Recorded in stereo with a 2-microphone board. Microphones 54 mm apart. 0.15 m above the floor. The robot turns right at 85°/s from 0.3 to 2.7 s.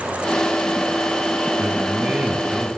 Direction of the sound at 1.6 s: 105° right.